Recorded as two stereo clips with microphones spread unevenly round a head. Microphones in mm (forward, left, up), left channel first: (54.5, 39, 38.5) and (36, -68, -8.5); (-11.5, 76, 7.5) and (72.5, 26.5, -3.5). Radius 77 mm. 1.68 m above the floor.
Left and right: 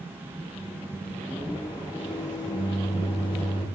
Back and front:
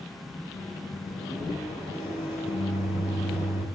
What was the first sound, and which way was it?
A microwave, 175° left.